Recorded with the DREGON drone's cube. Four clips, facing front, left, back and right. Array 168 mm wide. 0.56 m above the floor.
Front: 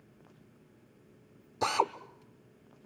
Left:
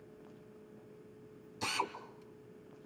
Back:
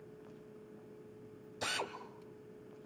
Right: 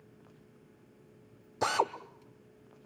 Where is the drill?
55° right, 1.3 m.